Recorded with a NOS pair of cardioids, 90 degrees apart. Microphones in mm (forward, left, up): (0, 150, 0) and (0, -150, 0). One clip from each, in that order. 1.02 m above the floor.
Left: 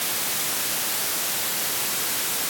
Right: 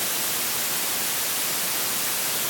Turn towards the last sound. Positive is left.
No sound to turn to.